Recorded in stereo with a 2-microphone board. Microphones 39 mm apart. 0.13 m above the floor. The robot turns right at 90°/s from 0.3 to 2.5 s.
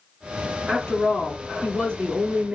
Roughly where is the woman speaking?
Behind left.